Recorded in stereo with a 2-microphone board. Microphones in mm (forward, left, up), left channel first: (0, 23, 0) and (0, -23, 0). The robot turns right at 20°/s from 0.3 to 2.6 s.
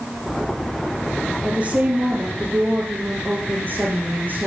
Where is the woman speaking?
25° right (ahead or behind), 2.5 m; by 4.5 s 45° right (ahead or behind), 2.5 m.